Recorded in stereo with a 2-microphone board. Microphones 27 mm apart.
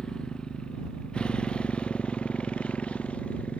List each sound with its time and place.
0.0 s a motorcycle: 30° left (ahead or behind); by 3.6 s 50° left (ahead or behind)